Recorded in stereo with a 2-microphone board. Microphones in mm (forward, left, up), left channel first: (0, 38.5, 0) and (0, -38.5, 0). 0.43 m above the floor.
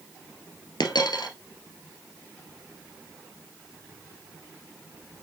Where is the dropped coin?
80° left, 1.3 m.